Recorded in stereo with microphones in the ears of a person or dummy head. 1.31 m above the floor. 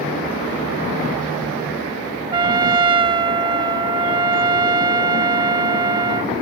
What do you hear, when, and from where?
2.3 s a trumpet: 25° right (ahead or behind)